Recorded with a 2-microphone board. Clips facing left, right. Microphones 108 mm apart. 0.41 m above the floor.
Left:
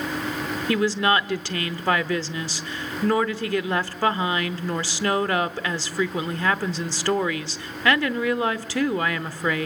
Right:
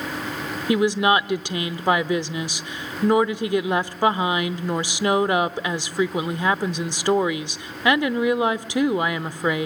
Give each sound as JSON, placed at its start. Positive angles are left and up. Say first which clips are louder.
{"t": 0.7, "sound": "a woman speaking", "louder": "right 3 dB", "side_deg": -15, "distance_m": 0.8}